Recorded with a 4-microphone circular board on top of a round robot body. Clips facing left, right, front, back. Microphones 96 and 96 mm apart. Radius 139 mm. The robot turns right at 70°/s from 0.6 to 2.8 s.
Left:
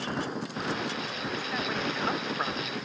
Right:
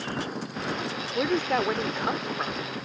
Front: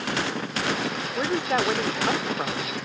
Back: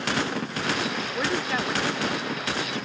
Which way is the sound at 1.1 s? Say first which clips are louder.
Right 8 dB, front 4 dB; 85° right.